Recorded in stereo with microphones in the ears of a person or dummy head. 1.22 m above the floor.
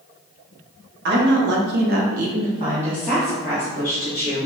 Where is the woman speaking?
55° right (ahead or behind), 0.9 m; by 4.5 s 20° left (ahead or behind), 1.3 m.